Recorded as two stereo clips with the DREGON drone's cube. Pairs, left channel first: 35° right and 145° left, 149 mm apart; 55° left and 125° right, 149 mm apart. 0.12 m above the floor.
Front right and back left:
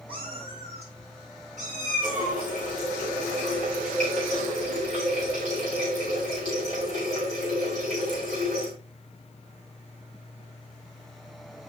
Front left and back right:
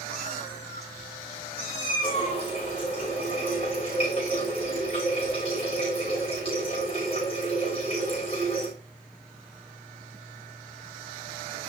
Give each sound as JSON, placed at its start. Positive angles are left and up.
{"t": 0.1, "sound": "a cat meowing", "azimuth_deg": 90, "distance_m": 8.0}
{"t": 2.0, "sound": "a running tap", "azimuth_deg": 105, "distance_m": 6.5}